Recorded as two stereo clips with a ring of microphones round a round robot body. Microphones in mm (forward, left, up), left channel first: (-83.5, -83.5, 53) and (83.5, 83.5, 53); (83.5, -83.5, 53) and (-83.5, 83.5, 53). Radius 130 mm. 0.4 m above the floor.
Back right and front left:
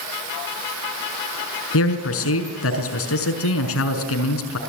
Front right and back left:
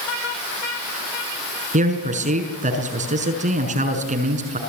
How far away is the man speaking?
About 5.5 m.